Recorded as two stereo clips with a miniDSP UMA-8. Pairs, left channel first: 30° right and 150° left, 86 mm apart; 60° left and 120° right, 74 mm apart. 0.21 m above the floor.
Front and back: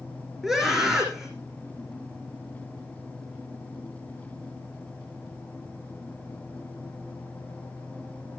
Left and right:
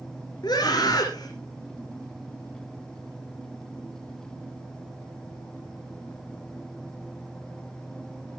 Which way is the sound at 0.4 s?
65° left.